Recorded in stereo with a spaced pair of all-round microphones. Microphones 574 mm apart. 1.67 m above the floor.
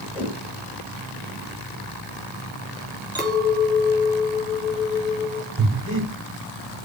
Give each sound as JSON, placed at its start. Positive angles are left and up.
{"t": 0.1, "sound": "a whoosh", "side_deg": -5, "distance_m": 4.5}
{"t": 3.1, "sound": "a clink", "side_deg": -5, "distance_m": 3.5}
{"t": 5.6, "sound": "breathing", "side_deg": -25, "distance_m": 3.5}